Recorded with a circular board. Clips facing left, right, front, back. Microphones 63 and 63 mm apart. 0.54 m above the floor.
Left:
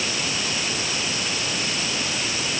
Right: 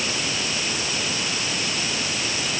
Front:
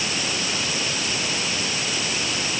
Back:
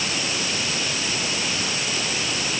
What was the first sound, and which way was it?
Only background noise.